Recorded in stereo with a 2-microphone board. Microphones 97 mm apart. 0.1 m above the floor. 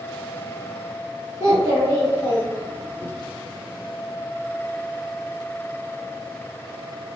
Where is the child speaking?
40° right (ahead or behind), 1.5 m.